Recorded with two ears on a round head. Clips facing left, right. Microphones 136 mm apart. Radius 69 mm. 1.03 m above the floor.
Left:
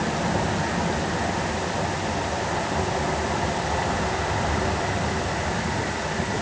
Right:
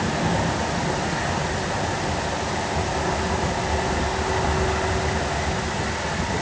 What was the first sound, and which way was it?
Only background noise.